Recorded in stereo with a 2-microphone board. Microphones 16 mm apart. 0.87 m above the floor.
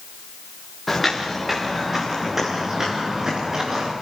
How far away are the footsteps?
About 5.5 m.